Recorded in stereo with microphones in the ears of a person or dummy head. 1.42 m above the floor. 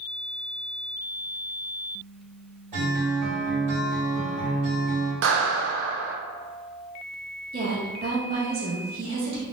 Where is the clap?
70° right (ahead or behind), 0.5 m.